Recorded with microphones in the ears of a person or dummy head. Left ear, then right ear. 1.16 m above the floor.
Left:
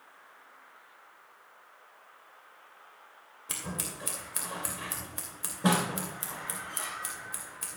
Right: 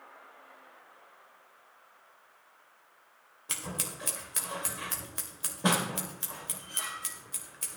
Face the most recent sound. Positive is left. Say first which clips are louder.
# right 1 dB
turn(degrees=-15)  # may be behind; listen again after turning